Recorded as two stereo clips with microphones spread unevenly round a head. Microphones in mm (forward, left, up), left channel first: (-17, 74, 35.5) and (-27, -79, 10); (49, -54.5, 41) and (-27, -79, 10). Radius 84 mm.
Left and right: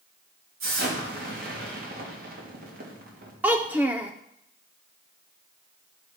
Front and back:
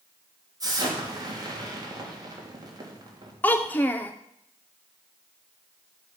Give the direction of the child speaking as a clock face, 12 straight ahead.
12 o'clock.